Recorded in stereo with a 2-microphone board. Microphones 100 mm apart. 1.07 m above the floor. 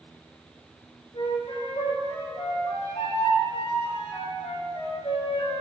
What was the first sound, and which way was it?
A flute, 80° left.